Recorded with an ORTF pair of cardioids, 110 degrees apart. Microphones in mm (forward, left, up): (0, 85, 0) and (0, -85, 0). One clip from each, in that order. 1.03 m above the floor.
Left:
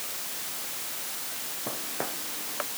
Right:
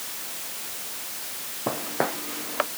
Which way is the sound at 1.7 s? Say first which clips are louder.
Right 9 dB; 50° right.